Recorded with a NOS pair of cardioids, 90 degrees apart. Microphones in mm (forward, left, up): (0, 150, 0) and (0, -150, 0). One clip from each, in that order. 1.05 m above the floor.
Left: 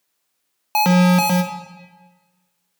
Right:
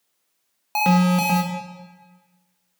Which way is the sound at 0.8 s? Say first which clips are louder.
Left 3 dB; 25° left.